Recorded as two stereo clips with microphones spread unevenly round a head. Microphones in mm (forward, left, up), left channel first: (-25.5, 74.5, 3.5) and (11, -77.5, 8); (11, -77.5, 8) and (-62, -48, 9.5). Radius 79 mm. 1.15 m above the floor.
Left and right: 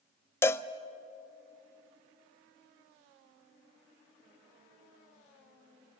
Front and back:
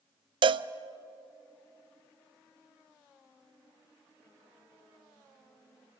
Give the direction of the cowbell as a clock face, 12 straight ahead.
6 o'clock.